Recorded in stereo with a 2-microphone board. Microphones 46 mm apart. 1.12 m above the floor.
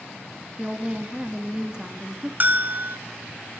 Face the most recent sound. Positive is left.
turn(degrees=-40)  # may be behind; listen again after turning